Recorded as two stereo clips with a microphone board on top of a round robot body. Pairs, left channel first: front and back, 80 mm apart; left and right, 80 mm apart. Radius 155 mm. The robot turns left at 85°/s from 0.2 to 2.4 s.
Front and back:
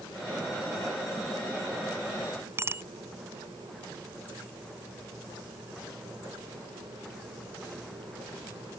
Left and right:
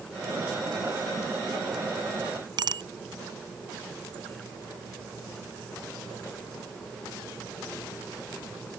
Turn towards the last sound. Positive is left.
turn(degrees=-120)